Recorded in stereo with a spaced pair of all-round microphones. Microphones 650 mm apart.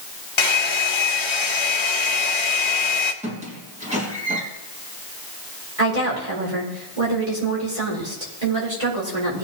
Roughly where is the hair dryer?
Left.